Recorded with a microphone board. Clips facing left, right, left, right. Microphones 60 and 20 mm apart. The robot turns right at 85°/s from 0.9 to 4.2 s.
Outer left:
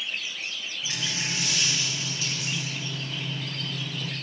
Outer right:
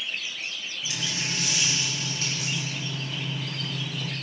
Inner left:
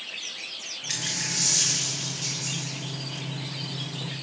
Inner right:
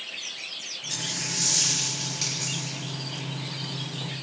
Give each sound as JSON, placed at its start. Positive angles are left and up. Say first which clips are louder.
{"t": 0.9, "sound": "a dropped coin", "louder": "even, inner left 2 dB", "azimuth_deg": 130, "distance_m": 4.0}